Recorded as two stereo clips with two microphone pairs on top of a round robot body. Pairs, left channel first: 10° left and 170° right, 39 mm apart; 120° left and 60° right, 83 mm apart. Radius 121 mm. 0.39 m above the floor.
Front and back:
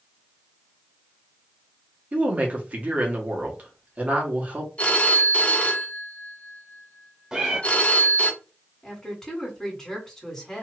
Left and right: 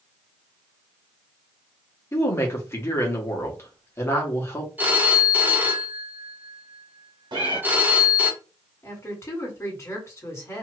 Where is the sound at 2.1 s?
150° left, 1.3 m.